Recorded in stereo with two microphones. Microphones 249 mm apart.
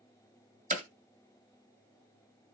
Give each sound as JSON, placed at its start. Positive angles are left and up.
{"t": 0.7, "sound": "hammering", "side_deg": -30, "distance_m": 1.3}